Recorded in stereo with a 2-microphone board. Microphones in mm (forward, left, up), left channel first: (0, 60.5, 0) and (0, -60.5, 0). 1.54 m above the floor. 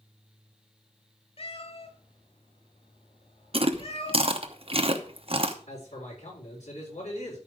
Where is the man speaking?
80° left, 6.5 m.